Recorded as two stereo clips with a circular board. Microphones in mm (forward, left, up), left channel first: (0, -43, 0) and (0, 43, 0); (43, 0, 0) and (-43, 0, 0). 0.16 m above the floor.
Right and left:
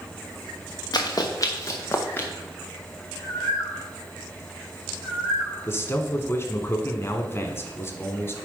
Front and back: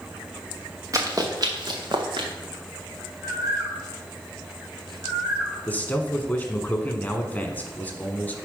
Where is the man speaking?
55° right, 1.2 m.